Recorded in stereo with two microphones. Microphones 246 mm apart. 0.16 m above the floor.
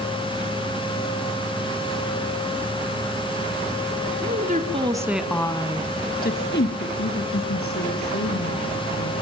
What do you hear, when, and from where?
4.2 s a woman speaking: 40° right (ahead or behind), 2 m; by 9.1 s 70° left (ahead or behind), 6 m